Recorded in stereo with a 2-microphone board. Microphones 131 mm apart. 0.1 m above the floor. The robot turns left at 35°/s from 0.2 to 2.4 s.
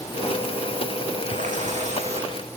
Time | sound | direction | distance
1.3 | a running tap | 95° right | 4 m